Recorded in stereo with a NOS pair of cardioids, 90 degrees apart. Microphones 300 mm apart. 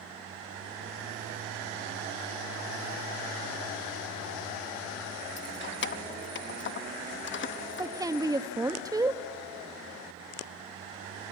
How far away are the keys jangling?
About 0.9 m.